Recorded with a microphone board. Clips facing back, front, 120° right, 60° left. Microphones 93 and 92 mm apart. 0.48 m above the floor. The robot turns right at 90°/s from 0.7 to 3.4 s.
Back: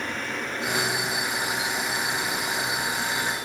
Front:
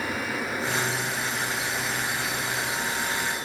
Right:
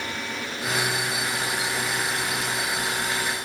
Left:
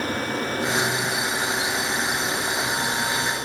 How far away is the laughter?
No laughter in this recording.